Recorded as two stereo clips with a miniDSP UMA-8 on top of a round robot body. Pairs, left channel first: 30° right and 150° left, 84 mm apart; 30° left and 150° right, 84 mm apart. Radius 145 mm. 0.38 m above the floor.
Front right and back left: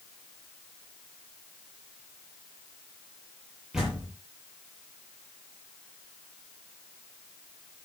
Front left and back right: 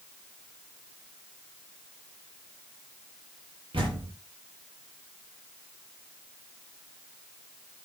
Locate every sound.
3.7 s a door slam: 125° right, 9 m